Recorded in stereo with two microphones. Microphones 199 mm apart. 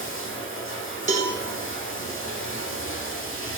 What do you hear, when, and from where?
0.0 s running water: 80° left, 0.8 m
1.1 s a cowbell: 40° right (ahead or behind), 0.7 m